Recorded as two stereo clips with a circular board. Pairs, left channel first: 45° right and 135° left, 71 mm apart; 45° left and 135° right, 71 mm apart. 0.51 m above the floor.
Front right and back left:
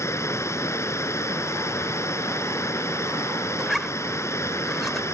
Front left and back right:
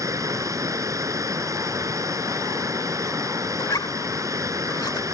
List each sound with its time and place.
0.0 s running water: 95° right
3.6 s a zipper: 40° left